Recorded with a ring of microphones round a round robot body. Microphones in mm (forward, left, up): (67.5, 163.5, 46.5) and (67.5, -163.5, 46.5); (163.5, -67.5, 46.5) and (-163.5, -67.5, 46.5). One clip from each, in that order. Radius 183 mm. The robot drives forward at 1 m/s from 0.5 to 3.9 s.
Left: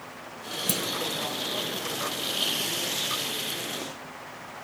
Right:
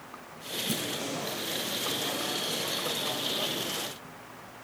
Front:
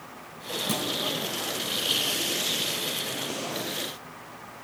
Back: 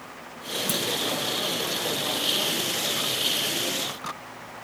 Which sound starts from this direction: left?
A clunk, at 0.7 s.